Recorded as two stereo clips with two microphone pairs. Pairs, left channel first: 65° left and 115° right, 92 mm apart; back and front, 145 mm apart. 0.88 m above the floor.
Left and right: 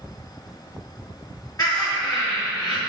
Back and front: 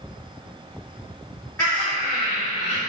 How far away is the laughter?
About 1.5 m.